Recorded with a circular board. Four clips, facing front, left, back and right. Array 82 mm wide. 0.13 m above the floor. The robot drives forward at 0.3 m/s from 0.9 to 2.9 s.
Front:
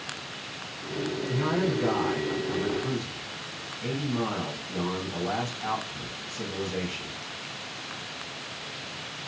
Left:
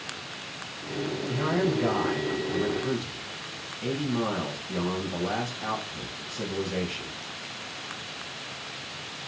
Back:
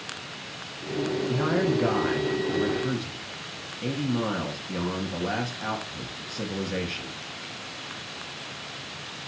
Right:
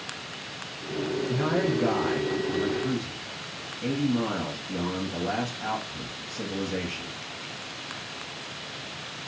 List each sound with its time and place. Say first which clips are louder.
1.3 s a man speaking: left 1 dB, back 1 dB; 175° right, 1.2 m